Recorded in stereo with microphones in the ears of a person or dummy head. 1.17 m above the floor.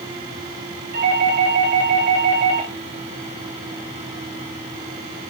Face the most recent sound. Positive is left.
turn(degrees=-60)  # may be behind; listen again after turning